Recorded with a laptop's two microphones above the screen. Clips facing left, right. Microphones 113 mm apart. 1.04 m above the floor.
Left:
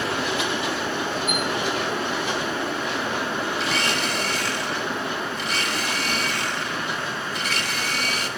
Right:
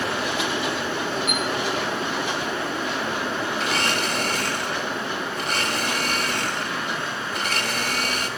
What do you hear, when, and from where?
1.3 s a chime: 60° right (ahead or behind), 7.5 m
3.6 s a blender: 50° right (ahead or behind), 2 m